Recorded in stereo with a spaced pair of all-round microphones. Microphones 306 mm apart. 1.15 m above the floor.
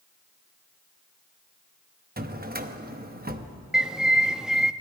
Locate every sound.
2.2 s a drawer: 30° right (ahead or behind), 0.9 m
3.7 s a bird: centre (ahead or behind), 0.5 m